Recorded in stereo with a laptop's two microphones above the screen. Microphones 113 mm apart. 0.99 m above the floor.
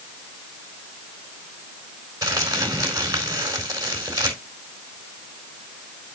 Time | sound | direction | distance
2.2 | crumpling | 35° right (ahead or behind) | 3.5 m